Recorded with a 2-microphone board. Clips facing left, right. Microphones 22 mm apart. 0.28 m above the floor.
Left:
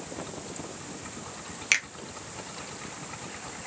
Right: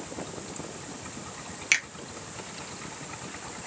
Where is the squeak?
I don't hear a squeak.